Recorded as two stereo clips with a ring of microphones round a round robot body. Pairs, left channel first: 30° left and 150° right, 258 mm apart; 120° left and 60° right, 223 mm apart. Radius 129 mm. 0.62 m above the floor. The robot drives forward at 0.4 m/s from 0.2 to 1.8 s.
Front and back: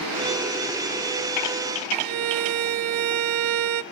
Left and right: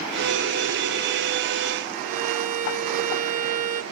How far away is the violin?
About 0.8 m.